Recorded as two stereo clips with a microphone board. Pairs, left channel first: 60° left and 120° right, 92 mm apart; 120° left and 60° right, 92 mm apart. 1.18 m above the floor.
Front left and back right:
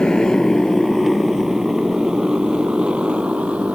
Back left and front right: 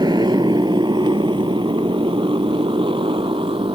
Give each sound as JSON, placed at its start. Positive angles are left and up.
{"t": 0.0, "sound": "a motorcycle", "azimuth_deg": -20}